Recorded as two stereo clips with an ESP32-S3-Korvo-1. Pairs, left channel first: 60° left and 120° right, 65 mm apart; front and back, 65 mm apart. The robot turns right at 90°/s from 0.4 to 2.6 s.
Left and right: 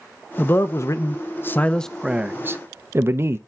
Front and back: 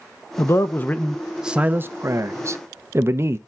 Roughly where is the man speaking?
Ahead.